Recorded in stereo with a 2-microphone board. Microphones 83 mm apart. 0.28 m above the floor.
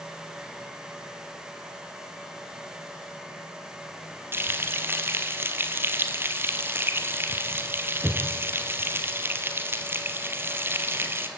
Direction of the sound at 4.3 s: 25° right (ahead or behind).